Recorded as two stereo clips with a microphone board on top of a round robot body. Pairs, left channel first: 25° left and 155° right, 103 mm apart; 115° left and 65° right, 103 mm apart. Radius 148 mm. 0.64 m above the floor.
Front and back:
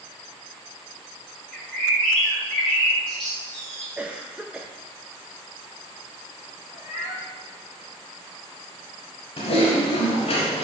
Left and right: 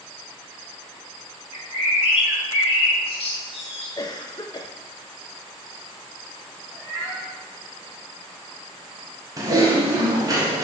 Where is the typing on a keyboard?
10° right, 0.8 m.